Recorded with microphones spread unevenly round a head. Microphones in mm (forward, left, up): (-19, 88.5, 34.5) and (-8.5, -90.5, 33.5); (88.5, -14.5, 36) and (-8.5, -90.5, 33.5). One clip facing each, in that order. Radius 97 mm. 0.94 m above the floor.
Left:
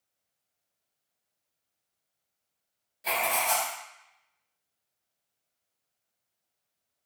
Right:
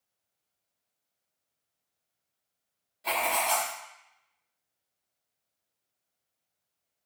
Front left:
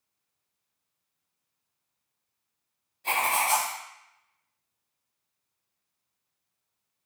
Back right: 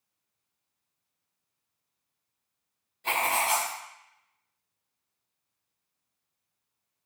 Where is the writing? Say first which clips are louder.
Even, front left 1 dB; 165° left, 2 m.